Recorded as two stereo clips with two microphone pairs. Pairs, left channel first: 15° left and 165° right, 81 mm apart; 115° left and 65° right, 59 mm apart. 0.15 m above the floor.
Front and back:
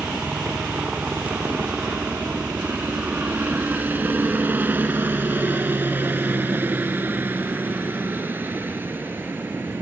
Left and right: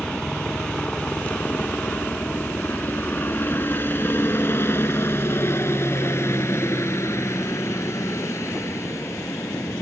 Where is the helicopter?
160° left; by 9.8 s 130° left.